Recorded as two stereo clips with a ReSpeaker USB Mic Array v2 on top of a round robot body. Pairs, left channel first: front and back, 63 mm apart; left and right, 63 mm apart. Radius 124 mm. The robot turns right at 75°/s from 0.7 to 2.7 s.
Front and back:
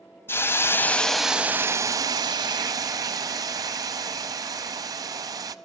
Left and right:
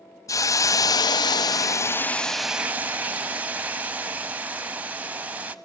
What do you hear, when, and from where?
0.3 s a hiss: 55° left, 0.6 m; by 5.5 s 155° right, 0.6 m